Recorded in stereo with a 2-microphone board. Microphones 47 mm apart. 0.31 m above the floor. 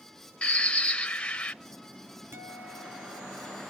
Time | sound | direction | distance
0.4 | a bird | 25° left (ahead or behind) | 1.1 m
2.3 | a guitar | 70° right (ahead or behind) | 2.5 m